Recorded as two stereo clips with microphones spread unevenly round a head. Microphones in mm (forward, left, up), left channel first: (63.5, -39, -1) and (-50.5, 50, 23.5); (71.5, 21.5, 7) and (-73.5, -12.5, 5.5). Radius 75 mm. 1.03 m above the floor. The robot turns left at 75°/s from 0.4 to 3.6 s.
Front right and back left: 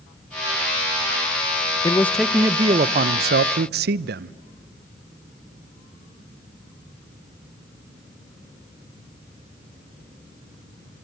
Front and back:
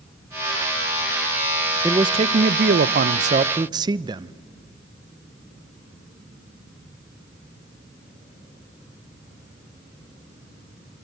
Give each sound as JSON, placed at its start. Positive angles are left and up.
{"t": 1.8, "sound": "a man speaking", "azimuth_deg": -95, "distance_m": 0.5}